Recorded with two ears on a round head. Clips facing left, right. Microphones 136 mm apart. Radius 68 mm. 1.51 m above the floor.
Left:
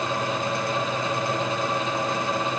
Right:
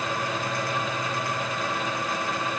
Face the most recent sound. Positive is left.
No sound to turn to.